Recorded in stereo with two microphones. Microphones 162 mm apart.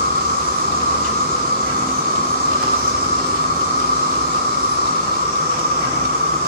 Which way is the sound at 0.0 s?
75° right (ahead or behind).